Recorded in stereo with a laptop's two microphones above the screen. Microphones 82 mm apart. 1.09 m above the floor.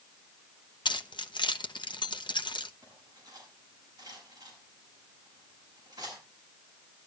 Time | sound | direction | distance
0.8 | keys jangling | 80° left | 0.8 m
2.8 | cutlery clinking | 45° right (ahead or behind) | 7 m